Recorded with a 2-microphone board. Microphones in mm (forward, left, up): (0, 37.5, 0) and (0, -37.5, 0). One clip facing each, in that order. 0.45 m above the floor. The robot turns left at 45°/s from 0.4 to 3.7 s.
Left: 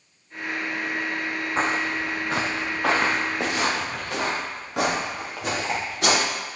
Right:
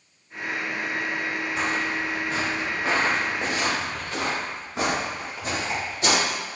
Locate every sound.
1.6 s footsteps: 40° left (ahead or behind), 1.1 m; by 6.2 s 70° left (ahead or behind), 7 m